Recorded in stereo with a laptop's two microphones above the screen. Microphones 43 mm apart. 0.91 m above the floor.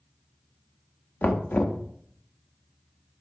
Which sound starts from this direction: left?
Knocking, at 1.2 s.